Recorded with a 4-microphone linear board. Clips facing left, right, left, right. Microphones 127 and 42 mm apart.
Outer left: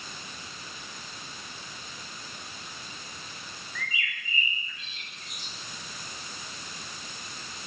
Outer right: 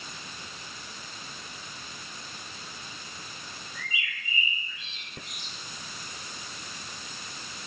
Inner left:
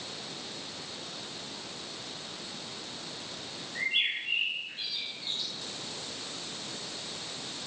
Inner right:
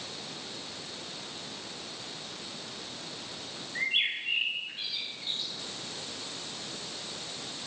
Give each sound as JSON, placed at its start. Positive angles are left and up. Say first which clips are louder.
{"t": 3.8, "sound": "a bird", "louder": "outer left 2 dB, even", "side_deg": -20, "distance_m": 9.5}